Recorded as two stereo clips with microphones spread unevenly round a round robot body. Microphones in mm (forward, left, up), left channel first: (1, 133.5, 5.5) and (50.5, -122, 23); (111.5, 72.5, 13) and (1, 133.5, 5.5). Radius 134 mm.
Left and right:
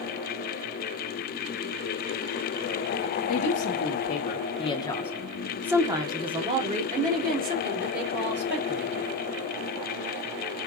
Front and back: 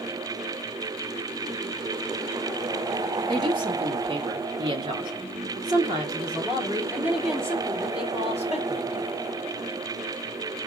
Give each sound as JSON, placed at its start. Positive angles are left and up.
{"t": 3.3, "sound": "a woman speaking", "azimuth_deg": 110, "distance_m": 1.4}